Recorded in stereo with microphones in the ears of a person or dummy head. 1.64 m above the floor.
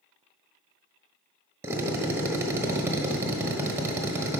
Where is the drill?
15° right (ahead or behind), 0.9 m.